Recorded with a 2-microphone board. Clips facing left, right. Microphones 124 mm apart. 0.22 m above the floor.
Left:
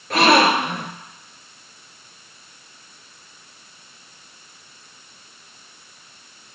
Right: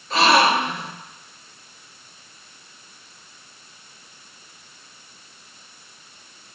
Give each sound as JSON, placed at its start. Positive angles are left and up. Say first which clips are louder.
{"t": 0.1, "sound": "a gasp", "louder": "left 2 dB", "side_deg": 60, "distance_m": 1.0}